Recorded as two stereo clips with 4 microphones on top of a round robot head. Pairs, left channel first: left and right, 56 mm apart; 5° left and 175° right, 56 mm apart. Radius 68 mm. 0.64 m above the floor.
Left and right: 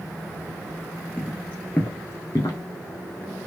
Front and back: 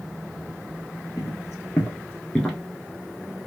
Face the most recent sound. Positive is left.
turn(degrees=100)